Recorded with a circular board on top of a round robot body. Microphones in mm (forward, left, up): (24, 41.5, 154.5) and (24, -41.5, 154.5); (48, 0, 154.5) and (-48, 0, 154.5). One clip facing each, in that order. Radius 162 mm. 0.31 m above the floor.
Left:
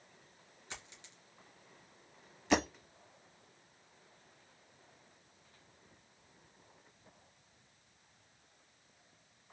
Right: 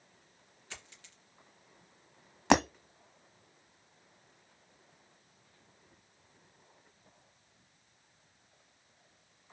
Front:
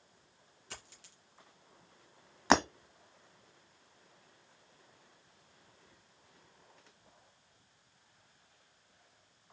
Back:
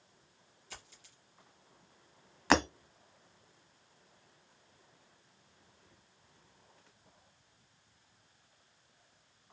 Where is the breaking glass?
75° right, 1.2 m.